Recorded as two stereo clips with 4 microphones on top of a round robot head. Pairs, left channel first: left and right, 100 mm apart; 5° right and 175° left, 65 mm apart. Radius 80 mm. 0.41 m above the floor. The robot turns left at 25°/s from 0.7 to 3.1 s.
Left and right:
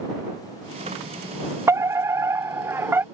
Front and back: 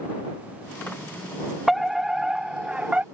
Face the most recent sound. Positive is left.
turn(degrees=-130)